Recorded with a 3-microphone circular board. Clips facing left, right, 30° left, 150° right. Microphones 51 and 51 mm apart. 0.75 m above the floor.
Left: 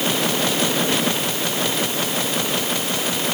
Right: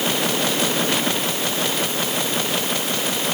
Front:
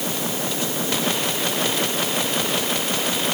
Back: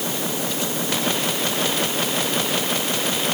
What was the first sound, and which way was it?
Only background noise.